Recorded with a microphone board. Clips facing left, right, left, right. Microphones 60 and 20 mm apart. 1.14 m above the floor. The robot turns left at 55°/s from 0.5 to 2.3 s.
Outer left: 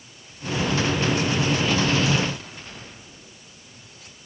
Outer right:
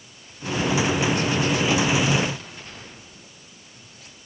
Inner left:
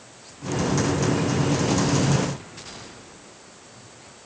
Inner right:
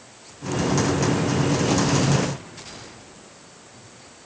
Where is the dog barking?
No dog barking in this recording.